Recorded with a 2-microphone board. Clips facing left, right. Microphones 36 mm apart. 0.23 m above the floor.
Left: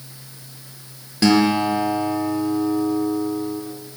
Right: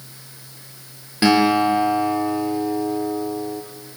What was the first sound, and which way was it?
A guitar, 20° right (ahead or behind).